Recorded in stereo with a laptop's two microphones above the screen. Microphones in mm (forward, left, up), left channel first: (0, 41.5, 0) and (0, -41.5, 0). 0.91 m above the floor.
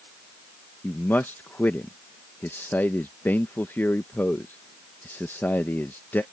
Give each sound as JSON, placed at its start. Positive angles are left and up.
{"t": 0.8, "sound": "a man speaking", "side_deg": 25}